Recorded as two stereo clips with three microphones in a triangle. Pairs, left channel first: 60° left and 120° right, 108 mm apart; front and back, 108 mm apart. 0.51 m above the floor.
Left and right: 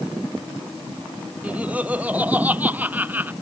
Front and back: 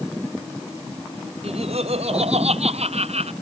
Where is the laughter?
165° left.